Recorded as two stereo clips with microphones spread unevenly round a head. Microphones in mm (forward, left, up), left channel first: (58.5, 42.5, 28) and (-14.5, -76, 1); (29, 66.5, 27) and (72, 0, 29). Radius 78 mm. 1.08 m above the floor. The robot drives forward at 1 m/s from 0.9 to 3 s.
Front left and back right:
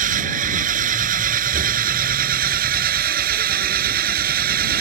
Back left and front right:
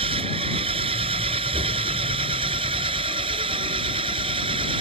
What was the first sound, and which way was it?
An engine running, 90° right.